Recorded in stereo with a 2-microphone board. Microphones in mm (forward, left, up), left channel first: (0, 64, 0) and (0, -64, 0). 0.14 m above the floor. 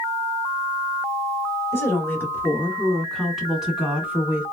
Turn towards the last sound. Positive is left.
turn(degrees=-15)  # may be behind; listen again after turning